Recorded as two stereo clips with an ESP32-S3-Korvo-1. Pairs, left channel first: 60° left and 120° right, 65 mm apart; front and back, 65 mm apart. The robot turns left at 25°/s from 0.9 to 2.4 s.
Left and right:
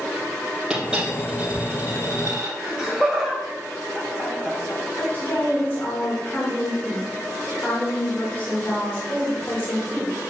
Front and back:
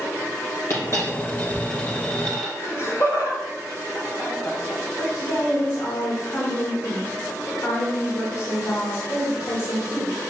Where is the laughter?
45° right, 2.5 m.